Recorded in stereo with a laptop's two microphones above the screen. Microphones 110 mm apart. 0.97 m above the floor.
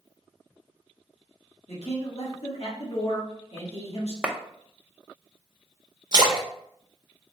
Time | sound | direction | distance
1.7 | a man speaking | 65° left (ahead or behind) | 1.5 m
4.2 | a clap | 10° right (ahead or behind) | 0.6 m
6.1 | a splash | 40° right (ahead or behind) | 0.7 m